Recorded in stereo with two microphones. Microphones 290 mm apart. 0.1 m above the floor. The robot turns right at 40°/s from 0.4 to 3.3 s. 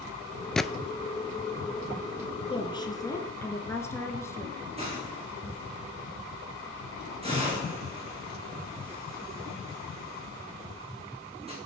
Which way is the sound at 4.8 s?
20° right (ahead or behind).